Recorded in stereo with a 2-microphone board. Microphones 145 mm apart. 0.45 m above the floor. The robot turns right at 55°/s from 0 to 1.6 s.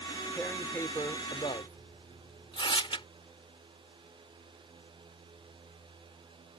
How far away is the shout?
I don't hear a shout.